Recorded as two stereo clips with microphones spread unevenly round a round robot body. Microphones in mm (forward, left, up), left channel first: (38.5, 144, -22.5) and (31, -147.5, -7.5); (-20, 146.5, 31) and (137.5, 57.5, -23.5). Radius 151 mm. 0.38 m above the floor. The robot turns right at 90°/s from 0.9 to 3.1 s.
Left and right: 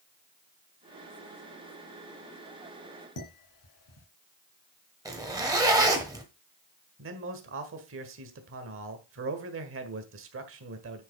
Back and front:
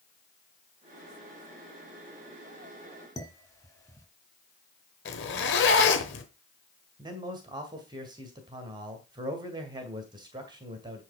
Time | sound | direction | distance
3.2 | dishes clattering | 75° left | 3 m
5.0 | a zipper | 170° right | 1.1 m
7.0 | a man speaking | 65° right | 1.7 m